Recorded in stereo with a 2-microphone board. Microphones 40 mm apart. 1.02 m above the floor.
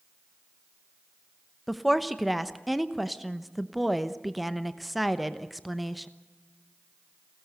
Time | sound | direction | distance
1.7 | a woman speaking | centre (ahead or behind) | 0.9 m